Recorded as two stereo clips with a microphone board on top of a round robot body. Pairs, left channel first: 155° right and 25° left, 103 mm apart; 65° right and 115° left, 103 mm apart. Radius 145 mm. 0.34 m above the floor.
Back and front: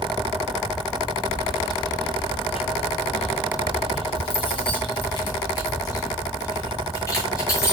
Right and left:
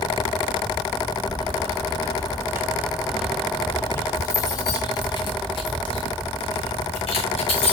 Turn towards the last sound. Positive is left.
turn(degrees=-95)